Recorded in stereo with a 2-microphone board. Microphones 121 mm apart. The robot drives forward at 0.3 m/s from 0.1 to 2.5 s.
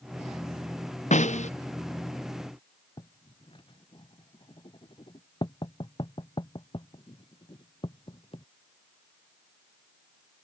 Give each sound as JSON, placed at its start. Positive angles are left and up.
{"t": 1.1, "sound": "a snare drum", "side_deg": 75}
{"t": 3.0, "sound": "writing", "side_deg": 45}